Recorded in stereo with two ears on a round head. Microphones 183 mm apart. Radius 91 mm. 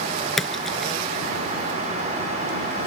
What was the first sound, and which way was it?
A splash, centre (ahead or behind).